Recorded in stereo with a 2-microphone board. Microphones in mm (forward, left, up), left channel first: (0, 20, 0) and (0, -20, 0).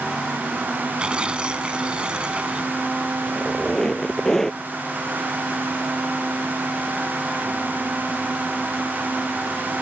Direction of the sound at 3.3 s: 10° left (ahead or behind).